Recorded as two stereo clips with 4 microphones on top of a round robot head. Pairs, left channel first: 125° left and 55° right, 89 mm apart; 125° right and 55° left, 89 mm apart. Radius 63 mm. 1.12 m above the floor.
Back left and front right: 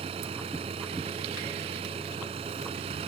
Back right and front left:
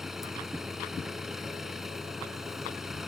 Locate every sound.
0.0 s an engine running: 30° right